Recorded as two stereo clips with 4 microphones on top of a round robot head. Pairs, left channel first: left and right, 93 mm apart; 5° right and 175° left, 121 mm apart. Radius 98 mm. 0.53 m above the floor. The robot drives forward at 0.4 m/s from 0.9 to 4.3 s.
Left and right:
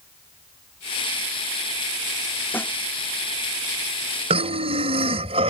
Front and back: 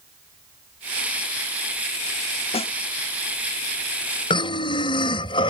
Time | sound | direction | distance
2.5 | a snare drum | 25° left | ?
4.3 | breathing | 60° right | ?